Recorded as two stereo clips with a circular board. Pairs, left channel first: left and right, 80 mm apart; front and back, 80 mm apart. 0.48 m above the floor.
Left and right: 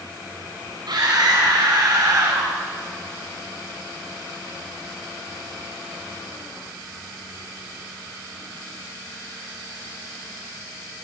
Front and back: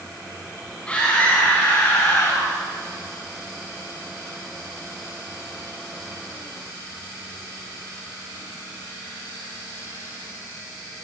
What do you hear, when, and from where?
0.9 s a scream: 75° right, 4 m; by 2.5 s 40° right, 2.5 m